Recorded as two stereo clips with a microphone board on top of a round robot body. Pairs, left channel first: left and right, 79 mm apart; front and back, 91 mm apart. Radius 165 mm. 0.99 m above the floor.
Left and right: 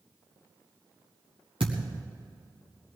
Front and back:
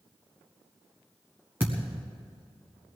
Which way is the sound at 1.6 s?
110° right.